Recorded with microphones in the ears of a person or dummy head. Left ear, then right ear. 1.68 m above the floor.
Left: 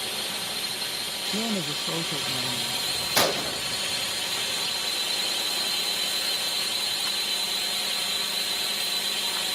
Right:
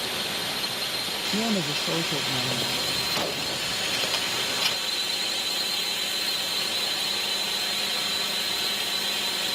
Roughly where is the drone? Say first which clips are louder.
Right 2 dB; centre.